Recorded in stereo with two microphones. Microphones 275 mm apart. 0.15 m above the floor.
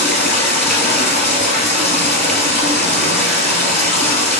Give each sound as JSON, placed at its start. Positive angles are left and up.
{"t": 0.0, "sound": "running water", "side_deg": 45, "distance_m": 1.0}